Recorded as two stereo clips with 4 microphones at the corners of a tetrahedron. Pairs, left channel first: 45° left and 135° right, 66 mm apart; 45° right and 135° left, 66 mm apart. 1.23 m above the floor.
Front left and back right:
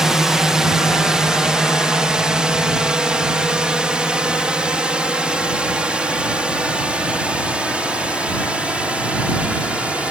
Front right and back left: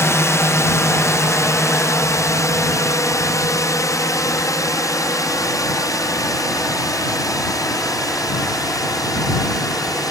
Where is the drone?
55° right; by 10.1 s 65° right.